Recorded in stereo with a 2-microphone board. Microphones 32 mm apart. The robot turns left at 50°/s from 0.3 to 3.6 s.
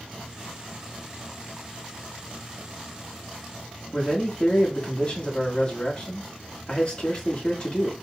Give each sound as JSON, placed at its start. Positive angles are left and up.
{"t": 3.9, "sound": "a man speaking", "side_deg": 30, "distance_m": 1.6}